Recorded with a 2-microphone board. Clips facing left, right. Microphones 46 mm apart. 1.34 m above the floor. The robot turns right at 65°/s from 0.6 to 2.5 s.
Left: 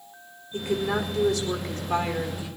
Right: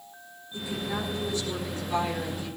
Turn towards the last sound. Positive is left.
turn(degrees=170)